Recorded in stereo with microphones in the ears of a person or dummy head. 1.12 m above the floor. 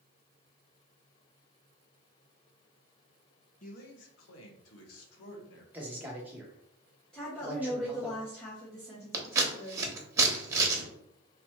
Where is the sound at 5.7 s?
5° right (ahead or behind), 1.1 m.